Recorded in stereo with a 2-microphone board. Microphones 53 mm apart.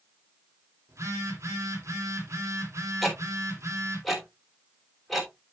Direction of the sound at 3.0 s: Centre (ahead or behind).